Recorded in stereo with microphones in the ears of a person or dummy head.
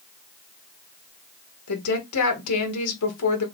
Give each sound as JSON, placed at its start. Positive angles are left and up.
{"t": 1.7, "sound": "a woman speaking", "side_deg": 90, "distance_m": 1.5}